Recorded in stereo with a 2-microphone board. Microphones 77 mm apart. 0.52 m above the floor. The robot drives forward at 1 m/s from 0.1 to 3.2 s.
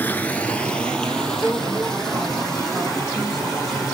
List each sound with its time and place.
0.0 s running water: 25° left (ahead or behind), 0.8 m; by 3.9 s 5° left (ahead or behind), 3.5 m
1.4 s a woman speaking: centre (ahead or behind), 1.4 m